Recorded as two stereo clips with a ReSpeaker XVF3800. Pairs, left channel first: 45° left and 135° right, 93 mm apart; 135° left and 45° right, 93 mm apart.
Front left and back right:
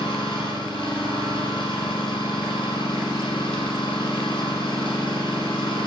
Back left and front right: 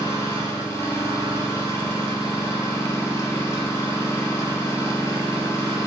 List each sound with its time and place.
0.0 s an engine running: 75° left, 4.5 m